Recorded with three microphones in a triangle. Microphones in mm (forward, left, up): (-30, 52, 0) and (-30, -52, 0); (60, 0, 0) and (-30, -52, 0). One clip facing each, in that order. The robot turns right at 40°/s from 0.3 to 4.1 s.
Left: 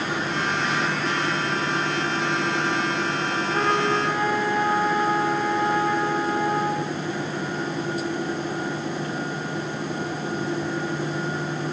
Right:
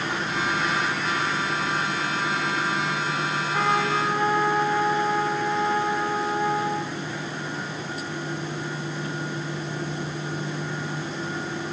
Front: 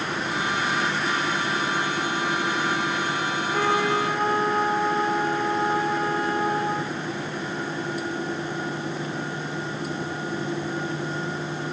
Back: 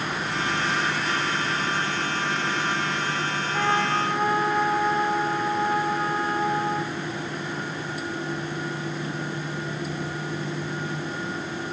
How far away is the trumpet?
About 3.5 m.